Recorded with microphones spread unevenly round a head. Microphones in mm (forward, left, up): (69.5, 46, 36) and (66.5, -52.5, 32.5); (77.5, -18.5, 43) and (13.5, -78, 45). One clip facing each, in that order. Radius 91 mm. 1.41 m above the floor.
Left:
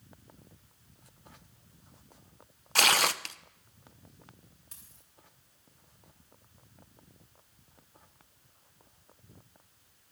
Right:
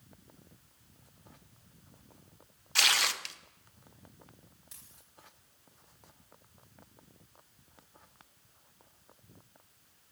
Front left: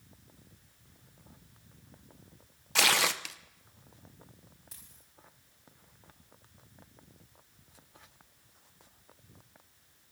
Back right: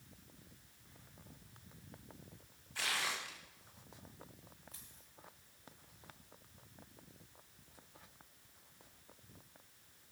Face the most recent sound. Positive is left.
turn(degrees=50)